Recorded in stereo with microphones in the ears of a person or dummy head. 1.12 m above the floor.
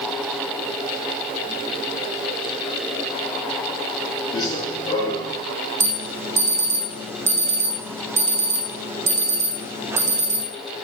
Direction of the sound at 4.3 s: 25° left (ahead or behind).